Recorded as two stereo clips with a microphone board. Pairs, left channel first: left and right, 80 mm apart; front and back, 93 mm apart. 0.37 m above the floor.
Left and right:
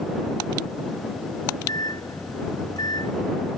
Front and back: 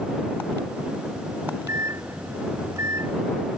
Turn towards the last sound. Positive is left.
turn(degrees=125)